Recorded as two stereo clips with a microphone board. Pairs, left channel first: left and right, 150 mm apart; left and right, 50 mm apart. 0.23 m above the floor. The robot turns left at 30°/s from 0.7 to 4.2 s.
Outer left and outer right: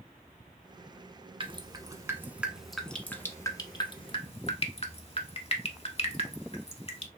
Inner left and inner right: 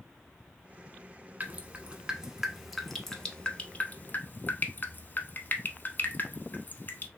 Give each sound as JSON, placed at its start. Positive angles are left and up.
{"t": 1.4, "sound": "dripping", "side_deg": -35, "distance_m": 0.6}